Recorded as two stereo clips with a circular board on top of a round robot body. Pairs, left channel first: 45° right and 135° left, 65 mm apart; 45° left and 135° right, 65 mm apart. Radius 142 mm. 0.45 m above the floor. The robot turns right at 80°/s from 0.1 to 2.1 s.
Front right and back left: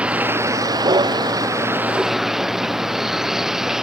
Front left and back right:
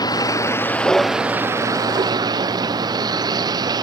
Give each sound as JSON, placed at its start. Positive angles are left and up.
{"t": 0.0, "sound": "a vehicle", "azimuth_deg": 60}